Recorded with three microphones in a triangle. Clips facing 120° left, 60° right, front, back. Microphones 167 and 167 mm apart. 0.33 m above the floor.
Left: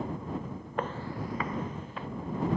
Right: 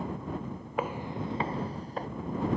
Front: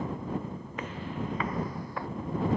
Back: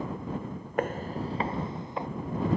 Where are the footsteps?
145° right; by 2.1 s 110° right.